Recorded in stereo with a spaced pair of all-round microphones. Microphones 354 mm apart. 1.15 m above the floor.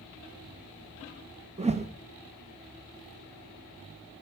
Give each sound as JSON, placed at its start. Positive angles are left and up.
{"t": 1.6, "sound": "a whoosh", "side_deg": -20, "distance_m": 0.7}